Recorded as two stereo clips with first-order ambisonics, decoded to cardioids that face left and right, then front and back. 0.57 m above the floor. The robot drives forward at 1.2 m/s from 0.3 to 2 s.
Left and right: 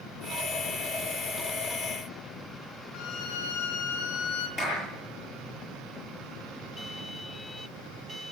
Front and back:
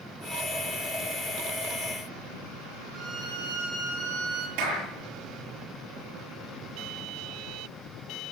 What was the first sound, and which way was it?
A violin, 125° left.